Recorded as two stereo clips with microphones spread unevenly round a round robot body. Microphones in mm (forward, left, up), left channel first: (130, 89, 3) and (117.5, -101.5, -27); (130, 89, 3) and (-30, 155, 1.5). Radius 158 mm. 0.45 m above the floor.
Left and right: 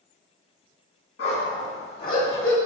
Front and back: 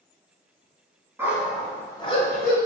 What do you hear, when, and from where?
1.2 s a dog barking: 80° left, 1.8 m; by 2.6 s 10° left, 1.4 m